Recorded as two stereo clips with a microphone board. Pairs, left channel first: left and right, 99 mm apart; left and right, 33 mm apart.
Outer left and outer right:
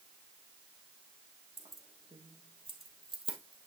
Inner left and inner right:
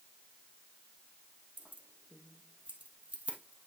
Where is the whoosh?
No whoosh in this recording.